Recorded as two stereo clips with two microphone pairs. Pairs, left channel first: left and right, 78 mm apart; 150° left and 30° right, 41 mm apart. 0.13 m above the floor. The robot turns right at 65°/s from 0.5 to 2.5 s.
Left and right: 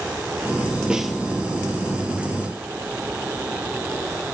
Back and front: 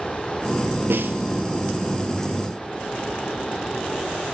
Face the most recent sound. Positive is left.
turn(degrees=90)